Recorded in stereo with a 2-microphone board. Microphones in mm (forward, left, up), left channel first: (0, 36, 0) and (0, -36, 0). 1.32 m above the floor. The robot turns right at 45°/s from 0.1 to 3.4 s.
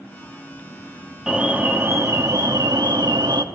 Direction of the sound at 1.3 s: 170° right.